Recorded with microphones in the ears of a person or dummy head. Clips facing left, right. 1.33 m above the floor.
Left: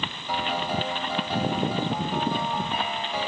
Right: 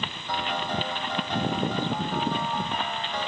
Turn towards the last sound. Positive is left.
turn(degrees=10)  # may be behind; listen again after turning